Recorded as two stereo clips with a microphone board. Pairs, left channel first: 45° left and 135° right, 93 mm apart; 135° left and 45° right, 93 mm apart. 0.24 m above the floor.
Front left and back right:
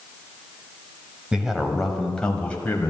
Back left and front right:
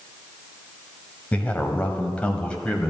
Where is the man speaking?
165° left, 1.5 m; by 2.9 s 75° left, 1.5 m.